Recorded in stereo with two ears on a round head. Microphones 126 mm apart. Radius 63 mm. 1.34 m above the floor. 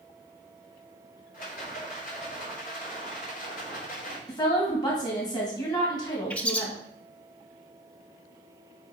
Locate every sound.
1.3 s a rattle: 65° left (ahead or behind), 3 m
4.3 s a woman speaking: 30° left (ahead or behind), 1.9 m
6.3 s a bird: 10° left (ahead or behind), 0.6 m